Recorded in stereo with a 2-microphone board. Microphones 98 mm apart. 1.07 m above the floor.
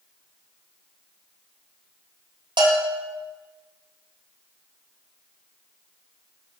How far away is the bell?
About 1.7 m.